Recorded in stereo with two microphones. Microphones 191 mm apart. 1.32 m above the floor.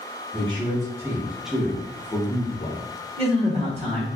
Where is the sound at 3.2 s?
35° right (ahead or behind), 1.3 m.